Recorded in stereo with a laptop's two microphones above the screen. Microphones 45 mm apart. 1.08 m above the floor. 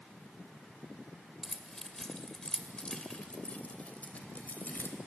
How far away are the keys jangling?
About 2.5 m.